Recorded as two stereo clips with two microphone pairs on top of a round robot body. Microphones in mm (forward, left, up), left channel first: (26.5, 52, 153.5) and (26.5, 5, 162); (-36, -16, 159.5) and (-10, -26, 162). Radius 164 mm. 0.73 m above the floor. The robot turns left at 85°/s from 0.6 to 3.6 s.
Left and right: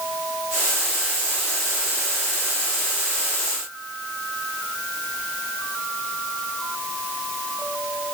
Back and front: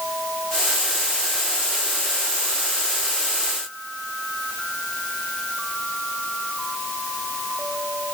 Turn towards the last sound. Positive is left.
No sound to turn to.